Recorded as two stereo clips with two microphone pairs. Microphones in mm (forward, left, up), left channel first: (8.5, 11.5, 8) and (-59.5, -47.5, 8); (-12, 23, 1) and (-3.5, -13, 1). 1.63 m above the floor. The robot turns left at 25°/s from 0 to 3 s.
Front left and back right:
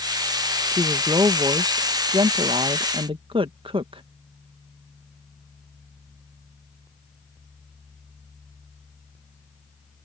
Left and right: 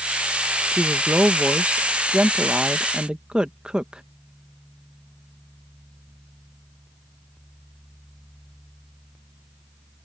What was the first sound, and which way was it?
A woman speaking, 85° right.